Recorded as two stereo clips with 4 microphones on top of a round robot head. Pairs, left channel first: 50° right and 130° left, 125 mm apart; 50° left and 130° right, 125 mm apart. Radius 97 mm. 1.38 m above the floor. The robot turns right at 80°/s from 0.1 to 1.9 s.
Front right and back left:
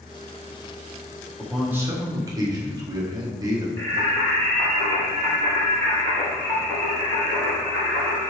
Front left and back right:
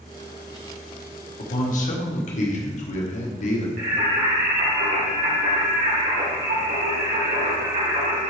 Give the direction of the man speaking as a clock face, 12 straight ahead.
11 o'clock.